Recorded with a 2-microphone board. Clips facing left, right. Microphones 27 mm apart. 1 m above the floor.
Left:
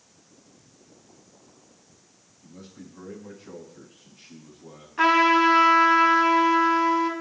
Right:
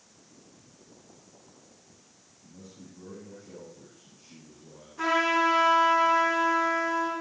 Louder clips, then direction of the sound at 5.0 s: Left 6 dB; 55° left (ahead or behind).